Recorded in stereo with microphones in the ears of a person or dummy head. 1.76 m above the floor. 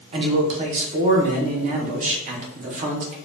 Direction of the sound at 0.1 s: 45° right (ahead or behind).